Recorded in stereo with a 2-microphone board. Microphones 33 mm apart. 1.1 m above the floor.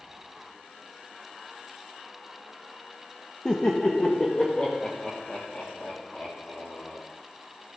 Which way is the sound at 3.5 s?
20° left (ahead or behind).